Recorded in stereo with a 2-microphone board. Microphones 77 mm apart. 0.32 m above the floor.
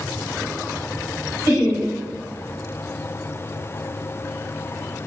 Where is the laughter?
45° right (ahead or behind), 1.5 m.